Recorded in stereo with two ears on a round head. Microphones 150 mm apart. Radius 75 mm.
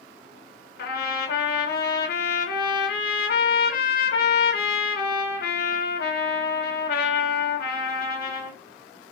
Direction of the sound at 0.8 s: 60° left (ahead or behind).